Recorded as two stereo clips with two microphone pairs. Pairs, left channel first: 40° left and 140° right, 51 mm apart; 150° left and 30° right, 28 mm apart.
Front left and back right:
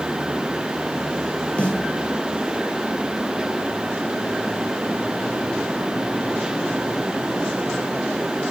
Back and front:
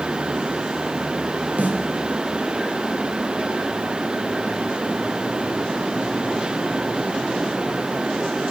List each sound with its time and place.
1.6 s a snare drum: 25° right, 2.0 m